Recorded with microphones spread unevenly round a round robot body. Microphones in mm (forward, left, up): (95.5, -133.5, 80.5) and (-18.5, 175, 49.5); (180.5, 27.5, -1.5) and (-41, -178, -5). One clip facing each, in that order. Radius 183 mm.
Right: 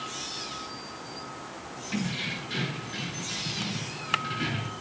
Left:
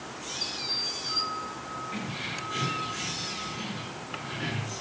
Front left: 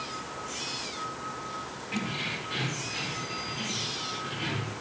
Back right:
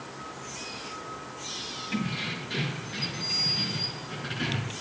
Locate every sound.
1.9 s keys jangling: 105° right, 9 m; by 4.7 s 125° right, 5.5 m